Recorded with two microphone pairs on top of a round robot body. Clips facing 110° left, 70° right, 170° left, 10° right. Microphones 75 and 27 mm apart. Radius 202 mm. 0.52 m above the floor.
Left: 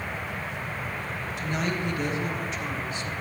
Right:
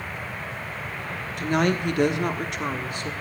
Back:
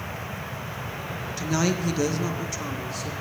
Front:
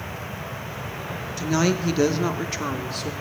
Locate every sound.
1.4 s a woman speaking: 95° right, 1.1 m; by 3.1 s 40° right, 1.6 m